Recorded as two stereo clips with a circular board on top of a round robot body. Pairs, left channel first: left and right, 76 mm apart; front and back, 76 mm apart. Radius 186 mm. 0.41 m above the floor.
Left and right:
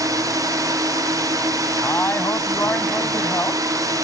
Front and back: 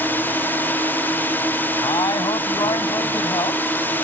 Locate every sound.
0.0 s a drone: 60° right
1.8 s a man speaking: 30° left